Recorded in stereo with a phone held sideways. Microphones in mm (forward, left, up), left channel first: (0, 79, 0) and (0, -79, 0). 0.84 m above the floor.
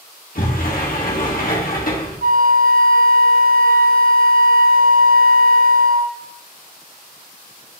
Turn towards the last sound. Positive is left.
turn(degrees=-65)  # may be behind; listen again after turning